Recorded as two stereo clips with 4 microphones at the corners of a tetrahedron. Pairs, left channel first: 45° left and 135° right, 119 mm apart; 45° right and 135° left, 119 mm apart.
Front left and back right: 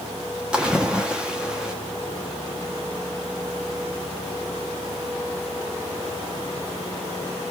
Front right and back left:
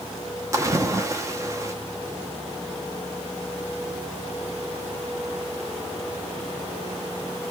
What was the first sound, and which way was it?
A splash, 155° left.